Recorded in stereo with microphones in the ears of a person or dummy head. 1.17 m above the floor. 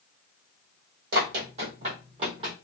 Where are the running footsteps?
50° right (ahead or behind), 1.7 m; by 2.5 s 30° right (ahead or behind), 1.7 m.